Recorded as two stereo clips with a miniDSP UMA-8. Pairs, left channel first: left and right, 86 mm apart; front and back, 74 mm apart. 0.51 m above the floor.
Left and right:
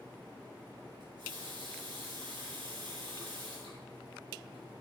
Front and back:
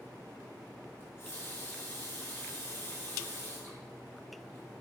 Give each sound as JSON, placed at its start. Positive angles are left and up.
{"t": 1.0, "sound": "a running tap", "azimuth_deg": -60, "distance_m": 4.0}